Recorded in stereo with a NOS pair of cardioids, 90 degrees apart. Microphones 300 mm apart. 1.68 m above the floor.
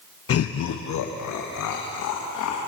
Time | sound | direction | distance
0.3 | laughter | 50° left | 1.0 m